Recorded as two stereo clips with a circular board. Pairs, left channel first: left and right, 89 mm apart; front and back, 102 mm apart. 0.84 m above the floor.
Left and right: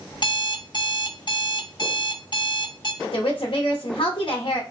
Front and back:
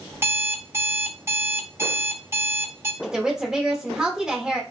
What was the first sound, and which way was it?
An alarm clock, 115° left.